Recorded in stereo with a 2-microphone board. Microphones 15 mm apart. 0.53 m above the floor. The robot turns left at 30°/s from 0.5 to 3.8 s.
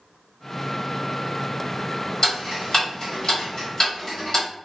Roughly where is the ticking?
Left.